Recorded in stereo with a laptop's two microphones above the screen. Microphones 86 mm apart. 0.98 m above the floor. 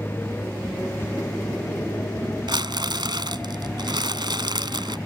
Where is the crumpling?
70° right (ahead or behind).